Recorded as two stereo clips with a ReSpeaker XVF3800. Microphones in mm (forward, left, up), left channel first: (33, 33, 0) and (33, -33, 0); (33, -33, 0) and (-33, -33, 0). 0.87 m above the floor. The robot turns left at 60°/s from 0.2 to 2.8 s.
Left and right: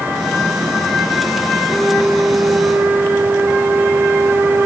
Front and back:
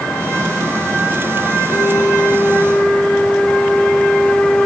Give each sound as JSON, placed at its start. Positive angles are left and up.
{"t": 1.7, "sound": "a flute", "azimuth_deg": -15, "distance_m": 1.3}